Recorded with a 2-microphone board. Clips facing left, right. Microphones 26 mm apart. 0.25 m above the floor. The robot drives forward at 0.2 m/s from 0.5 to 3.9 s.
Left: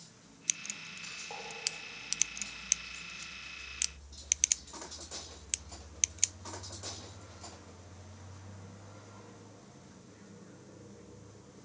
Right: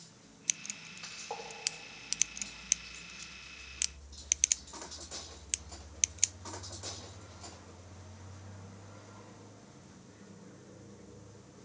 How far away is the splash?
About 4 m.